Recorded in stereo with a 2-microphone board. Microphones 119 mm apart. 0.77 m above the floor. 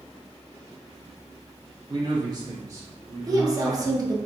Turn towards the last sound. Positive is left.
turn(degrees=-30)  # may be behind; listen again after turning